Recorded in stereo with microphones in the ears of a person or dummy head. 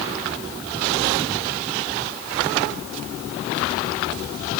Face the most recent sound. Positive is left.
No sound to turn to.